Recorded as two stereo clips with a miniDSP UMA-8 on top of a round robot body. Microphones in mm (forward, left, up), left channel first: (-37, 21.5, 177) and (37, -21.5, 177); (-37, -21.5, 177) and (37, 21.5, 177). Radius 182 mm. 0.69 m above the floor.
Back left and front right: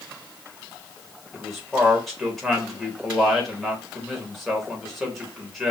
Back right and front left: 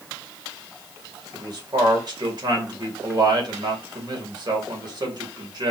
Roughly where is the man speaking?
Ahead left.